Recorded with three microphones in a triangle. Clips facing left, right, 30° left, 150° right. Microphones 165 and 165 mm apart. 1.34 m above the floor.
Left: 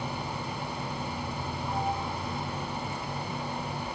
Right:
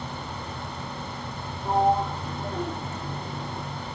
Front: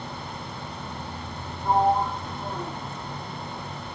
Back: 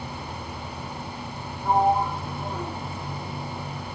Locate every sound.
1.6 s a sliding door: 65° right